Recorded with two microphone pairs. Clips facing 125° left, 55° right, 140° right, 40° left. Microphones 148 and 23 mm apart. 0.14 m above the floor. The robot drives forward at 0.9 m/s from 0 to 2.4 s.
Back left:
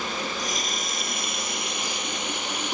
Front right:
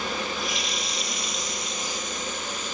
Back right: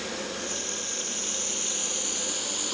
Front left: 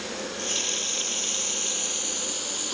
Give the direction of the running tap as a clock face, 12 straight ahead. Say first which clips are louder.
Even, front left 3 dB; 9 o'clock.